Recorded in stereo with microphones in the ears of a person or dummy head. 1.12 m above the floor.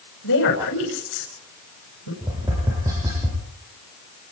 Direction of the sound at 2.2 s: 15° right (ahead or behind).